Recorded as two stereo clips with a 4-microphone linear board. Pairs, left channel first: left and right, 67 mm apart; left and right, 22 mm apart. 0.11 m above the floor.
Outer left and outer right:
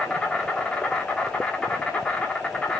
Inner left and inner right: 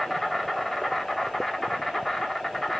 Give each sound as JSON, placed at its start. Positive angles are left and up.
{"t": 0.0, "sound": "an insect", "side_deg": 20, "distance_m": 1.1}